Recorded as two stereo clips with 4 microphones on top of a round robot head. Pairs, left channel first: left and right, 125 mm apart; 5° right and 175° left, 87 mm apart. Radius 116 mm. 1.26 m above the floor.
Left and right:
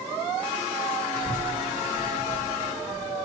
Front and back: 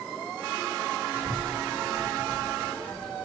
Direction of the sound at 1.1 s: 105° right.